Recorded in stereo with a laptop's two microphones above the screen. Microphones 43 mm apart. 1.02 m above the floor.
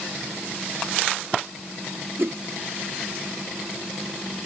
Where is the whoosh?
60° right (ahead or behind).